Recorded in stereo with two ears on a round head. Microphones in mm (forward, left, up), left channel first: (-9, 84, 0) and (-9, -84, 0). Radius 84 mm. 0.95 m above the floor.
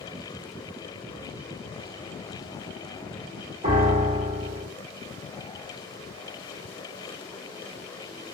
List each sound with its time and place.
3.6 s a piano: 40° right (ahead or behind), 1.4 m